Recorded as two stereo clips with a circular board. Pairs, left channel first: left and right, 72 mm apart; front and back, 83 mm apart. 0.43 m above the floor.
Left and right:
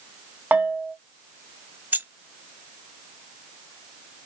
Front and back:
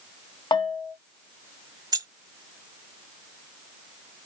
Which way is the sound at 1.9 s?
150° right.